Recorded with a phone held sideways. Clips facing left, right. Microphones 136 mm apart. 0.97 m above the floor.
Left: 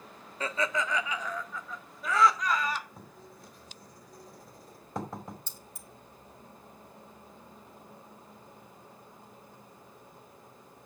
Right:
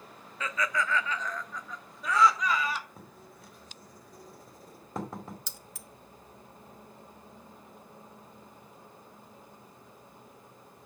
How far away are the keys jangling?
About 0.9 m.